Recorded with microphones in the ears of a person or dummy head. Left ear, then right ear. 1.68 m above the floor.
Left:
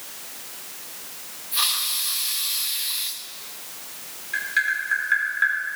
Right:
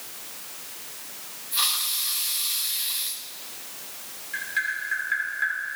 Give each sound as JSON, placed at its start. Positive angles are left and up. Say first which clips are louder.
{"t": 1.5, "sound": "a hiss", "louder": "left 2 dB", "side_deg": 5, "distance_m": 0.5}
{"t": 4.3, "sound": "tapping", "louder": "left 5 dB", "side_deg": 15, "distance_m": 2.5}